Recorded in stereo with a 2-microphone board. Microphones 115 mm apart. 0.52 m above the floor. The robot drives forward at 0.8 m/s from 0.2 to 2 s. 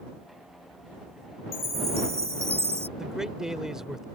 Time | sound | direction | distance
1.5 | a chime | 65° right (ahead or behind) | ?
3.0 | a man speaking | 5° right (ahead or behind) | ?